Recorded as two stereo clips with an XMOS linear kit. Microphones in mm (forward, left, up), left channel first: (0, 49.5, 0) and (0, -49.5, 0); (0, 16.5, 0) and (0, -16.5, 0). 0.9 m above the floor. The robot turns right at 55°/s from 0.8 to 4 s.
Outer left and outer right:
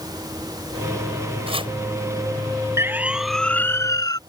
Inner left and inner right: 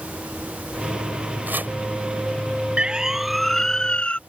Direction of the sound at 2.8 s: 30° right (ahead or behind).